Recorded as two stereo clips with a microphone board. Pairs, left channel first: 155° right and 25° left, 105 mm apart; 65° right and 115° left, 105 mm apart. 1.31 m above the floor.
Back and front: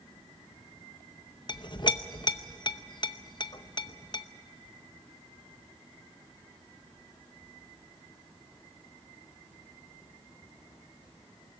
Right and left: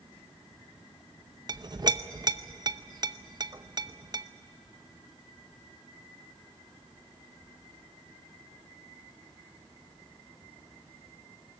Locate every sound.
1.5 s a clink: 160° left, 0.8 m